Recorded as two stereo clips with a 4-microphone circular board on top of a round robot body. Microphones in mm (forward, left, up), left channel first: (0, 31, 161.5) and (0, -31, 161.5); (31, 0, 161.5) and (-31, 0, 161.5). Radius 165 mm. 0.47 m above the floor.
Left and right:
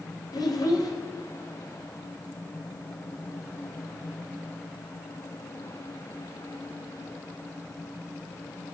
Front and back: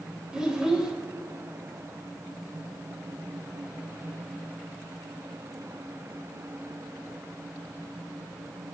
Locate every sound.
0.3 s a child speaking: 100° left, 1.6 m